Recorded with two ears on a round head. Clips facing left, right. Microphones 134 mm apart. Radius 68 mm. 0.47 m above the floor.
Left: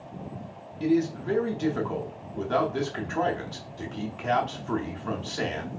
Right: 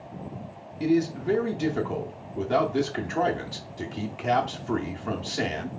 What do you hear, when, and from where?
0.8 s a man speaking: 15° right (ahead or behind), 0.7 m